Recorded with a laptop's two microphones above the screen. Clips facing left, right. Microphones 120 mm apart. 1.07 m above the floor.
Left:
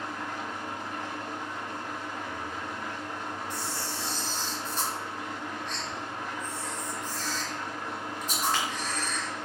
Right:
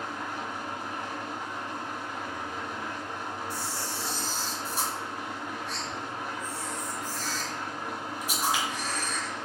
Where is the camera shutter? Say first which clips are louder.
Even; 10° right (ahead or behind), 1.4 m.